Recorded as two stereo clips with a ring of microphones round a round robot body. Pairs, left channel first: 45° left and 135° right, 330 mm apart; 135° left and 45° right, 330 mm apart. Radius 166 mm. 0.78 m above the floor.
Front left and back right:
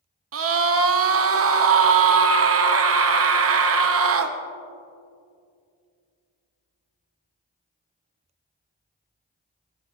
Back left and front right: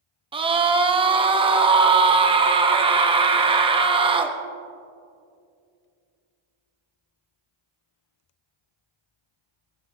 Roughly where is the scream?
Behind right.